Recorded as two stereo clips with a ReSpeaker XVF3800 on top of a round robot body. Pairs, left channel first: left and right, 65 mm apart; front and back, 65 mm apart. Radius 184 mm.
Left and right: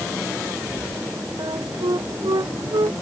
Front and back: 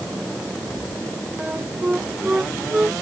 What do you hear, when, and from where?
1.4 s a flute: 105° right